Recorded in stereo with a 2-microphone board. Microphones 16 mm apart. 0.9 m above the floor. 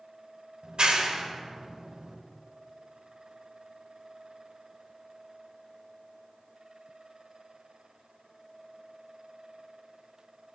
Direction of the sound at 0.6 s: 85° right.